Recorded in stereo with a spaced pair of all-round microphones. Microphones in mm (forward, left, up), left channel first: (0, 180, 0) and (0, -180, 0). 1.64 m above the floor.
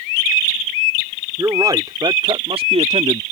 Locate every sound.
1.4 s a man speaking: 10° right (ahead or behind); by 3.2 s 20° right (ahead or behind)